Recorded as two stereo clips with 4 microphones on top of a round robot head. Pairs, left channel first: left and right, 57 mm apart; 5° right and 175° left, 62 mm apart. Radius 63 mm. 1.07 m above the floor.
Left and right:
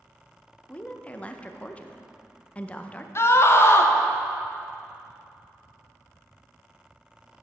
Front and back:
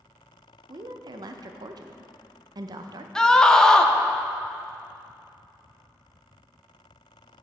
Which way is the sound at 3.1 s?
70° left.